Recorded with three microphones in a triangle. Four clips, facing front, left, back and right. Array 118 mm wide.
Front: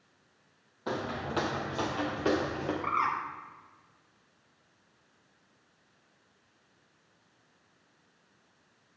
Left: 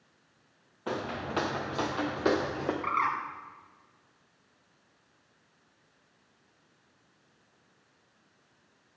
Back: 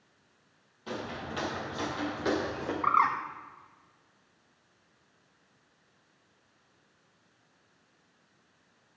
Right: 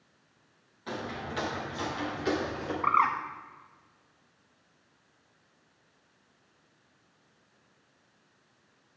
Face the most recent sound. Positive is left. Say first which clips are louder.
# right 6 dB, back 6 dB
turn(degrees=-135)